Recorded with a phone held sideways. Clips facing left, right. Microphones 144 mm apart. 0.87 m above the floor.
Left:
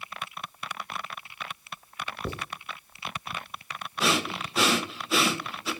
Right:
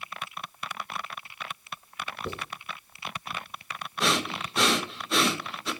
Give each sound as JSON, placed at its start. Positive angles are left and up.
{"t": 2.2, "sound": "writing", "side_deg": 40, "distance_m": 1.4}
{"t": 4.0, "sound": "breathing", "side_deg": 5, "distance_m": 0.9}